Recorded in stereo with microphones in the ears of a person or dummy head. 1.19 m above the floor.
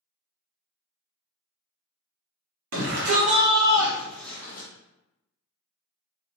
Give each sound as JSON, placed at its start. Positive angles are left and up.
{"t": 2.7, "sound": "a shout", "side_deg": -65, "distance_m": 1.0}